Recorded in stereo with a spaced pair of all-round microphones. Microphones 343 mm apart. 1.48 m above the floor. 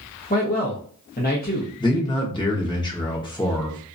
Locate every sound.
0.3 s a man speaking: 25° left (ahead or behind), 0.9 m
1.8 s a man speaking: 15° left (ahead or behind), 0.9 m